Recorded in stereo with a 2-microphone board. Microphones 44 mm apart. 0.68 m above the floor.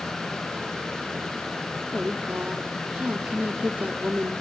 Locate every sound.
1.9 s a woman speaking: 30° right (ahead or behind), 1.5 m